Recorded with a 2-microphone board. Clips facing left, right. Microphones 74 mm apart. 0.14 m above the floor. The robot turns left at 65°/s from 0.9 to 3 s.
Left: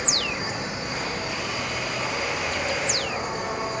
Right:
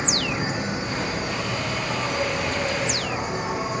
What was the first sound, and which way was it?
An insect, 40° right.